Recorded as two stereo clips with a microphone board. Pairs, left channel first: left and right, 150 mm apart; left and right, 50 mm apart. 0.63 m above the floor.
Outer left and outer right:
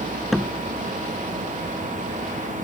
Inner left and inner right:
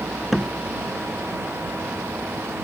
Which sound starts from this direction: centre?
A door slam, at 0.3 s.